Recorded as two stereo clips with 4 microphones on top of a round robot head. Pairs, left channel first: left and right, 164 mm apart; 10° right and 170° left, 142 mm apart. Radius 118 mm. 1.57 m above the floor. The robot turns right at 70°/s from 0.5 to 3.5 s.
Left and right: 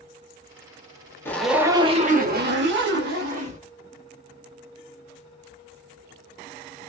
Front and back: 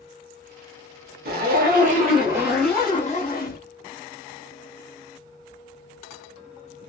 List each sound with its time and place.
1.2 s a zipper: 165° left, 1.2 m; by 3.6 s 35° right, 1.2 m